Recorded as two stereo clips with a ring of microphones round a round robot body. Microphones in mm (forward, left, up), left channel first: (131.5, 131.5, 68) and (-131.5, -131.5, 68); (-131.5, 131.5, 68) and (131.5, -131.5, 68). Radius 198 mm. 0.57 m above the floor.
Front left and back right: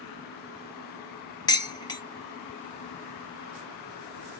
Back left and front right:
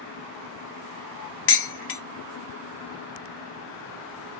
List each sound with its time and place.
1.5 s dishes clattering: 115° left, 0.6 m